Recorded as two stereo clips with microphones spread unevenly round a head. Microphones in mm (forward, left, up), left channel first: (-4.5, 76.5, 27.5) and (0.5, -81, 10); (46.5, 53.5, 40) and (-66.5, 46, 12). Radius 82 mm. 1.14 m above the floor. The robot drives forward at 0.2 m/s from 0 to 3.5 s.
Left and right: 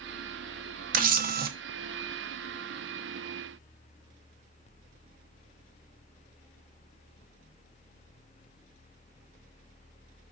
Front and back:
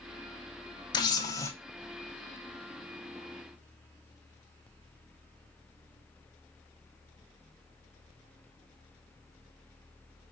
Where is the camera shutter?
60° right, 0.5 m; by 1.5 s 75° right, 0.5 m.